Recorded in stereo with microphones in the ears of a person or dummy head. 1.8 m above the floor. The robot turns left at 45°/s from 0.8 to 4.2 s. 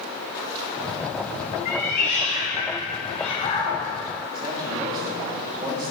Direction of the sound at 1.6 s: 115° left.